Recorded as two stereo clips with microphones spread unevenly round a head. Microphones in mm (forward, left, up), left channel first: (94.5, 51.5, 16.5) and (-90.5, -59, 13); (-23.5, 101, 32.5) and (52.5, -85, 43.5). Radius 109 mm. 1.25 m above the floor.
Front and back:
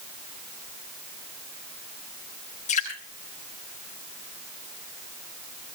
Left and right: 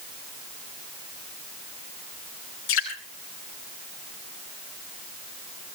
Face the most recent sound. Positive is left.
turn(degrees=90)